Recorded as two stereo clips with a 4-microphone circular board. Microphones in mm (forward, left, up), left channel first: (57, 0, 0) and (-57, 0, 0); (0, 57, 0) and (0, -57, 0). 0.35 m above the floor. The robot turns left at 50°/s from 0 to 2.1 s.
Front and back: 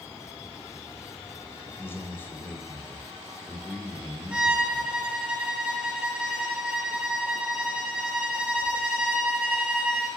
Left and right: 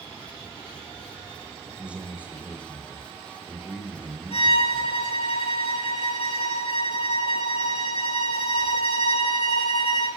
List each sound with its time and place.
1.8 s a man speaking: 20° right, 0.9 m; by 5.0 s 40° right, 0.9 m
4.3 s a violin: 100° left, 1.2 m